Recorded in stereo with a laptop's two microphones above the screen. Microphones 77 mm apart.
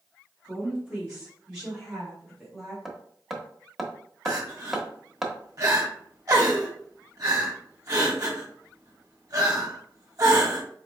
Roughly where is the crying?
Right.